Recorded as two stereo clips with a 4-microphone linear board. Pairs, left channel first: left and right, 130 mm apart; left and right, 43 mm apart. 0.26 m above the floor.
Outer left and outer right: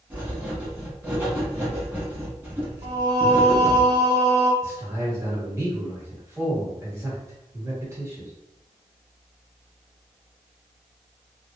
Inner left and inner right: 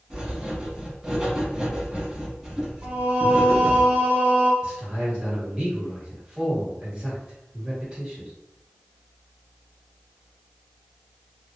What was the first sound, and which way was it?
Writing, 15° right (ahead or behind).